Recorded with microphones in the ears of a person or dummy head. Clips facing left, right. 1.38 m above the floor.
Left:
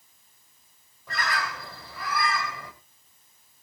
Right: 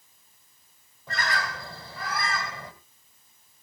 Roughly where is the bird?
Right.